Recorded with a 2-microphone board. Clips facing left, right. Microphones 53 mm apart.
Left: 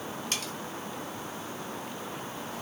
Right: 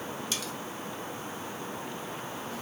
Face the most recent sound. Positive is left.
turn(degrees=45)  # may be behind; listen again after turning